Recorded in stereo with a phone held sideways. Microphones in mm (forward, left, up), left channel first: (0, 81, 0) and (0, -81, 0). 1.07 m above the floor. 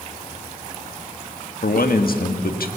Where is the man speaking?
80° left, 1.5 m.